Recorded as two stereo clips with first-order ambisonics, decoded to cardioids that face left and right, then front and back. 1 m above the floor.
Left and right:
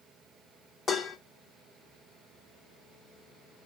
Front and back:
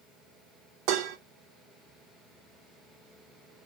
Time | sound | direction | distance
0.9 | dishes clattering | 165° left | 0.8 m